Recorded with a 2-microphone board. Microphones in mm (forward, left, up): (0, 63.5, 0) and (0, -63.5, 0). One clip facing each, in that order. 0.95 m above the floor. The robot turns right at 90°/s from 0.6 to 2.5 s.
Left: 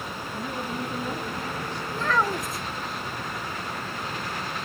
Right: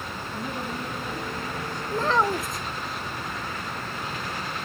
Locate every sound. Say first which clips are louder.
0.3 s a woman speaking: left 1 dB; 10° right, 8 m; by 1.8 s 100° left, 8 m
1.9 s a child speaking: right 2 dB; 50° right, 0.6 m; by 2.6 s 5° left, 0.6 m